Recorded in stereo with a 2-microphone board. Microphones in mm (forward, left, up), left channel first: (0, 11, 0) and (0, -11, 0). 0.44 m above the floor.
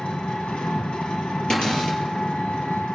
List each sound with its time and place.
0.0 s an engine running: 80° left, 2.0 m
1.5 s a cupboard door: 50° left (ahead or behind), 5 m